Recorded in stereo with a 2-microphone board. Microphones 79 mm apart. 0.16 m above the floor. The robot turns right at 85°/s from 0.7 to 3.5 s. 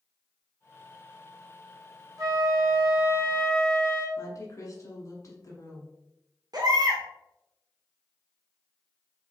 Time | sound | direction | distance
2.2 | a flute | 120° right | 1.8 m
4.2 | a woman speaking | 40° left (ahead or behind) | 1.4 m
6.5 | a baby crying | 50° right (ahead or behind) | 1.0 m